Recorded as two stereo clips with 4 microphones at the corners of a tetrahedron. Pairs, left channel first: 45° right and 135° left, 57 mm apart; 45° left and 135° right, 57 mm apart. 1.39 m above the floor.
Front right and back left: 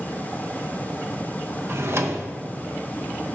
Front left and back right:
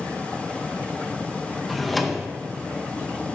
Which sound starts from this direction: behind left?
A drawer, at 1.7 s.